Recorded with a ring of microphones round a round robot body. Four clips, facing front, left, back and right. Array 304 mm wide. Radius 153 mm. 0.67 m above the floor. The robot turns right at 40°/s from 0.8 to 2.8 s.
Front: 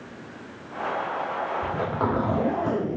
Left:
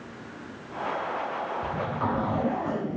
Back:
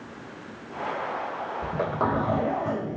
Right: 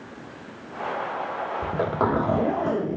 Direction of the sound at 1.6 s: 105° right.